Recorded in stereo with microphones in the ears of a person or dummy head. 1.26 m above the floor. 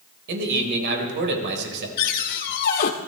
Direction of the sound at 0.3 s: 65° right (ahead or behind).